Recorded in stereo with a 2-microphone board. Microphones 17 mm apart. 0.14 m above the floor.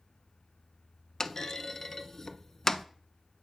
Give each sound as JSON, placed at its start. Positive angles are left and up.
{"t": 1.2, "sound": "a clunk", "side_deg": 20, "distance_m": 0.6}